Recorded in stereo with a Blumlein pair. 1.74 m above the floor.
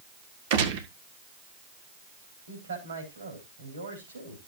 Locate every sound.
0.5 s a gunshot: 50° right, 1.8 m
2.5 s a man speaking: 70° right, 4.5 m